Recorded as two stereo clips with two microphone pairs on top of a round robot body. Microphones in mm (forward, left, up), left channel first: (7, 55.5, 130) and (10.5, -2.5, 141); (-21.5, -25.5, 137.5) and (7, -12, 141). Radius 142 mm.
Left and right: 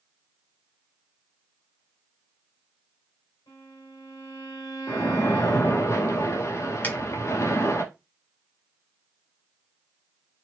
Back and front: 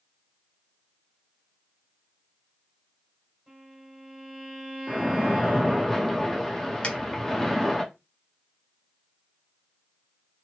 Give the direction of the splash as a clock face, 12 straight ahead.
8 o'clock.